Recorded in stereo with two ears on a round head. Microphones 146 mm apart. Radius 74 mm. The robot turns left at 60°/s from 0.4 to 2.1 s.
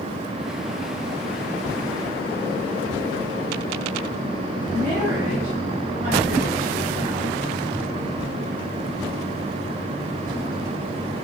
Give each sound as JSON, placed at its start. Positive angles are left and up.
{"t": 4.7, "sound": "a woman speaking", "side_deg": -20, "distance_m": 5.0}